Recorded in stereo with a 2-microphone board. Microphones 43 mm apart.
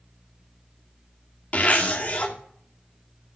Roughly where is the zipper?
Left.